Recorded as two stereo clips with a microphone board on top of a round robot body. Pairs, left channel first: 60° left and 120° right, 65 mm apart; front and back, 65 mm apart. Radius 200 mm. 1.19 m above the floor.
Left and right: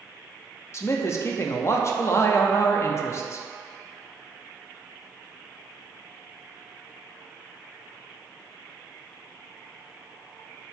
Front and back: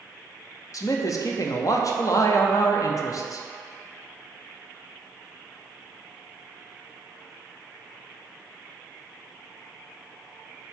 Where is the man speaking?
20° left, 0.7 m.